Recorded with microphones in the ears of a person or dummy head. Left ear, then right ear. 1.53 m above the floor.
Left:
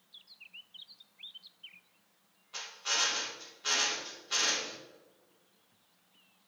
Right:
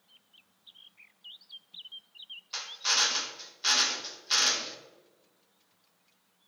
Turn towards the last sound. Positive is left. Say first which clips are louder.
# right 5 dB
turn(degrees=-75)  # may be behind; listen again after turning